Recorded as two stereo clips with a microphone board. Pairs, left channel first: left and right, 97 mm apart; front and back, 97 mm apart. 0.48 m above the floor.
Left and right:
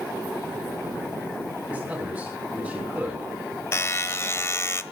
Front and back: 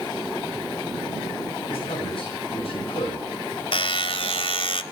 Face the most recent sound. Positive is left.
turn(degrees=25)